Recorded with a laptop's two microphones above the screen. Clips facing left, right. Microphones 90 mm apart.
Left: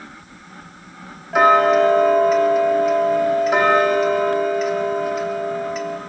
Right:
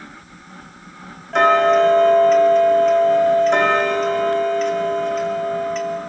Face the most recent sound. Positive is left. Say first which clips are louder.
# even
turn(degrees=5)  # may be behind; listen again after turning